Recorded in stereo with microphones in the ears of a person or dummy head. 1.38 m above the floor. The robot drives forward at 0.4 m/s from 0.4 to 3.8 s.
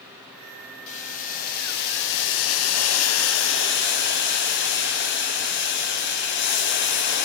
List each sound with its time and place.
0.9 s boiling: 40° left (ahead or behind), 1.0 m; by 7.3 s 60° left (ahead or behind), 0.7 m